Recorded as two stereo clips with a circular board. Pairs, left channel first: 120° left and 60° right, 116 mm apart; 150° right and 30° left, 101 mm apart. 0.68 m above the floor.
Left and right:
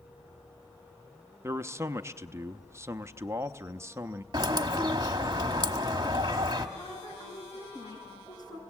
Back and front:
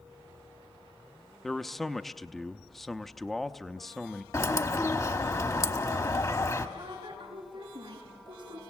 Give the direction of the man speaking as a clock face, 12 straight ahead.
2 o'clock.